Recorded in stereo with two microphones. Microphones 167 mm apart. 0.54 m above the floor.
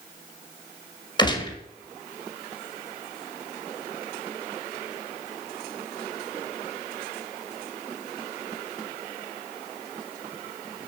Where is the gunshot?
25° left (ahead or behind), 2 m.